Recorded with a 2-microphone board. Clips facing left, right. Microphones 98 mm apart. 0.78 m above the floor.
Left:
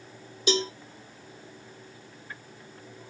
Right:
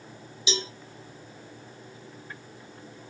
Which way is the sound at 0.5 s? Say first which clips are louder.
Left 6 dB; 50° left (ahead or behind).